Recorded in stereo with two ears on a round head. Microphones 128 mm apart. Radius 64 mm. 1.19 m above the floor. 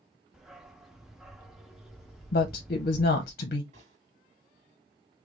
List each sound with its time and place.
0.3 s a dog barking: 5° right (ahead or behind), 0.6 m
2.3 s a woman speaking: 70° left (ahead or behind), 0.6 m
3.7 s a gunshot: 45° right (ahead or behind), 2 m